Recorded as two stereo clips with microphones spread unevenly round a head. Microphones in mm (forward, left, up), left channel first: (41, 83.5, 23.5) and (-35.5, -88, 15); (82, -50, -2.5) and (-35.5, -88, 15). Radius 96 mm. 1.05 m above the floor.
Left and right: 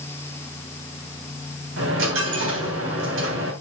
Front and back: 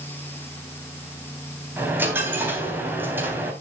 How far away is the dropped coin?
About 3.5 m.